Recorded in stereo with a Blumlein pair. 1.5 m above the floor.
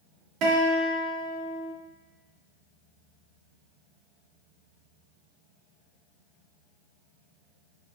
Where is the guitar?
40° right, 2.5 m.